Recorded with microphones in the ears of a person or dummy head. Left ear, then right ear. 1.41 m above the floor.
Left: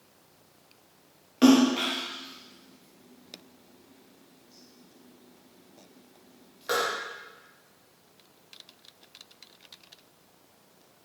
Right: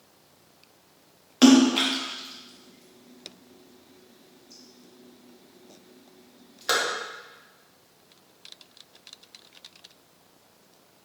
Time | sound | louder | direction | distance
1.4 | a splash | right 3 dB | 20° right (ahead or behind) | 0.7 m